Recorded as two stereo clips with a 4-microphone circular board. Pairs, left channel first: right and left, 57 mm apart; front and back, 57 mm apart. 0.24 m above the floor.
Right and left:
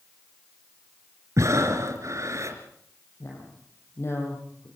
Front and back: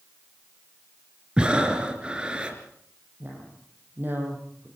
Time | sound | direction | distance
1.4 | breathing | 110° left | 3 m
3.2 | a woman speaking | 125° right | 8.5 m